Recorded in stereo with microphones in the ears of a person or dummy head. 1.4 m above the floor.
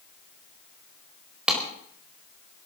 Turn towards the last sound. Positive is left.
turn(degrees=-5)  # may be behind; listen again after turning